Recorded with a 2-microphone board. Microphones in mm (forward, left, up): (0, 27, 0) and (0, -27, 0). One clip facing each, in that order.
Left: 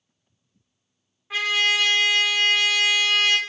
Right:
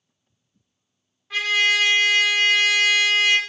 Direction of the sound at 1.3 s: 15° left (ahead or behind).